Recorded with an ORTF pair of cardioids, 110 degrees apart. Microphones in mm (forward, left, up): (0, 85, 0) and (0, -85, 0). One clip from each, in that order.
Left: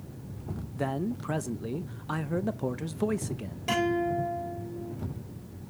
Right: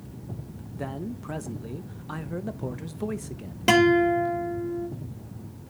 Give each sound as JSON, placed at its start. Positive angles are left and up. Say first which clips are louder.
{"t": 0.8, "sound": "a man speaking", "louder": "left 3 dB", "azimuth_deg": 20, "distance_m": 0.6}
{"t": 3.7, "sound": "a guitar", "louder": "right 8 dB", "azimuth_deg": -70, "distance_m": 3.0}